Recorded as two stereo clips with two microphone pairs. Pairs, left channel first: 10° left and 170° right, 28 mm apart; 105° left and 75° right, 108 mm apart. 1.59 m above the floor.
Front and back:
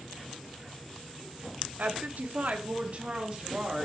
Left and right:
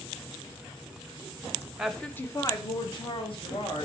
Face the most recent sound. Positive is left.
turn(degrees=135)